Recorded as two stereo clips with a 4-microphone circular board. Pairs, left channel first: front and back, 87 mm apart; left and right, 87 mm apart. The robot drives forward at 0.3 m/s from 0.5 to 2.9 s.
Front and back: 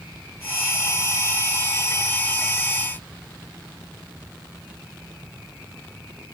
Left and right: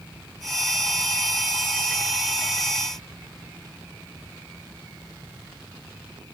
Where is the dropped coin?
I don't hear a dropped coin.